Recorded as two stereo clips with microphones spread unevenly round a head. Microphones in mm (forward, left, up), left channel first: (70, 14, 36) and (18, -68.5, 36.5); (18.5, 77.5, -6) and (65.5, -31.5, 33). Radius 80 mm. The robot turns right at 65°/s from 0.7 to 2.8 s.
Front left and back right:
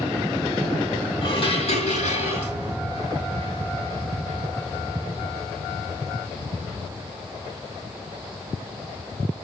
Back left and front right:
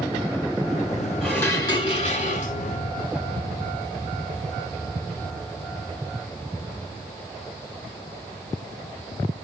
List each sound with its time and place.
1.2 s dishes clattering: 25° left, 5 m; by 2.5 s 110° left, 5 m